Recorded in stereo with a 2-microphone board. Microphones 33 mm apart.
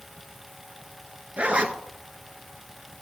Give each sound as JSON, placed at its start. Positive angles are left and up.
{"t": 1.4, "sound": "a zipper", "side_deg": -35, "distance_m": 0.6}